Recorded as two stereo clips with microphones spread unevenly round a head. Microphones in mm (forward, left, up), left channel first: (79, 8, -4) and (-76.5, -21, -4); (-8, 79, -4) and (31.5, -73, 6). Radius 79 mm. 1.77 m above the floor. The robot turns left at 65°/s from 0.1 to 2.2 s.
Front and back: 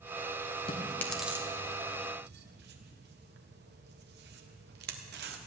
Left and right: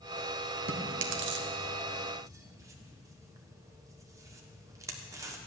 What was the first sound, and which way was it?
Chewing, 50° right.